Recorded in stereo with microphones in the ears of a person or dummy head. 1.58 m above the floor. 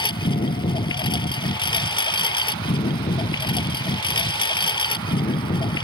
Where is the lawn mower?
25° left (ahead or behind).